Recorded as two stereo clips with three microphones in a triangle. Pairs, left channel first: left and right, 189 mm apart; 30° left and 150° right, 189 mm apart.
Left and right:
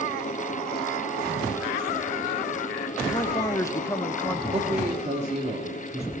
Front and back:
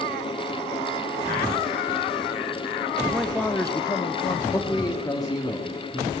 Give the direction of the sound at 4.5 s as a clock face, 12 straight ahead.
1 o'clock.